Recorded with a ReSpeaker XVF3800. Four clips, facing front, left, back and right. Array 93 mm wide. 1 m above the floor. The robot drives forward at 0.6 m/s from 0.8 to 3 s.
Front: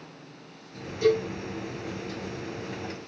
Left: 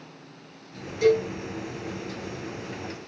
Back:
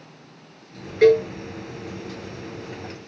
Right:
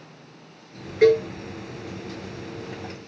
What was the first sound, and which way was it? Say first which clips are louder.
A cowbell: right 4 dB, back 8 dB; 145° right.